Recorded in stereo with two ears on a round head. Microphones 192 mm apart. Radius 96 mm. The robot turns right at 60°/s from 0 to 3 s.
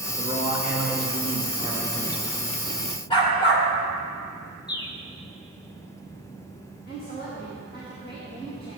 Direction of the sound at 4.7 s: 20° left (ahead or behind).